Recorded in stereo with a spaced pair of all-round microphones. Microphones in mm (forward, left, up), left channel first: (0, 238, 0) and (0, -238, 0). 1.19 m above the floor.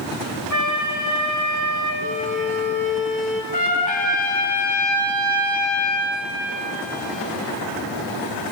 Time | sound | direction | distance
0.5 | a flute | 40° left (ahead or behind) | 1.9 m
2.0 | a violin | 15° left (ahead or behind) | 1.8 m
3.5 | a trumpet | 15° left (ahead or behind) | 1.6 m